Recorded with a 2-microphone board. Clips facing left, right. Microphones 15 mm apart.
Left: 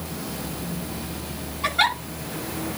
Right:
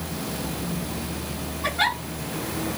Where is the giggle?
50° left (ahead or behind), 7.5 m.